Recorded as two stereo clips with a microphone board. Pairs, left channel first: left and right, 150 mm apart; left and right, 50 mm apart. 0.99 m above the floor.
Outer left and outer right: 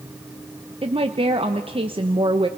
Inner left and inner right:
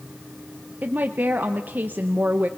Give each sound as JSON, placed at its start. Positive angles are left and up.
{"t": 0.8, "sound": "a woman speaking", "side_deg": -40, "distance_m": 0.8}